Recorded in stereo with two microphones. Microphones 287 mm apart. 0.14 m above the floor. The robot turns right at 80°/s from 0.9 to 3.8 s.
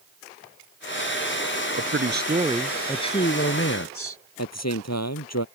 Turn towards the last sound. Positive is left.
turn(degrees=65)  # may be behind; listen again after turning